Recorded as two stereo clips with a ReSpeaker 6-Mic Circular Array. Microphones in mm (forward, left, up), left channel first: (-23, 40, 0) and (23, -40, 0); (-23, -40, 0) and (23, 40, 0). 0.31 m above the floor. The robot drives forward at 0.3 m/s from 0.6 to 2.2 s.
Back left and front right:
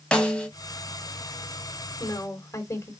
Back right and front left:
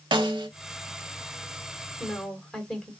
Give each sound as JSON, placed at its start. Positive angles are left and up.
{"t": 0.1, "sound": "a snare drum", "azimuth_deg": 40, "distance_m": 1.1}
{"t": 2.0, "sound": "a woman speaking", "azimuth_deg": 160, "distance_m": 2.0}